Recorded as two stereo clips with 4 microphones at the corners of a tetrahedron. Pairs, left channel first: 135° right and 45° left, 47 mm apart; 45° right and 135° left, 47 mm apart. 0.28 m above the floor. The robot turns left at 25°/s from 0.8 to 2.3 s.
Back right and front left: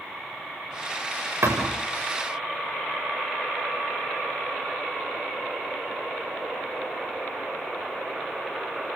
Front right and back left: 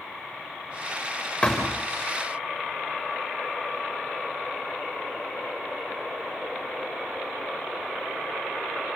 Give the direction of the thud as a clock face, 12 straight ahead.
11 o'clock.